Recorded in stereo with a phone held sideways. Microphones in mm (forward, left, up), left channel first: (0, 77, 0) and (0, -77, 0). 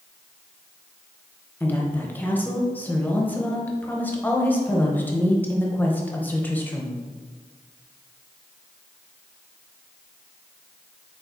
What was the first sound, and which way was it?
A woman speaking, 10° left (ahead or behind).